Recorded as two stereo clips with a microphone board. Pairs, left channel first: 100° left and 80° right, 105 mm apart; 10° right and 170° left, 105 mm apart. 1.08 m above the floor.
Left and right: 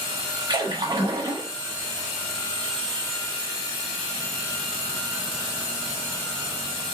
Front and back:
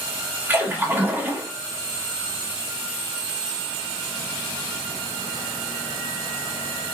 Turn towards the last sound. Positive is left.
turn(degrees=-120)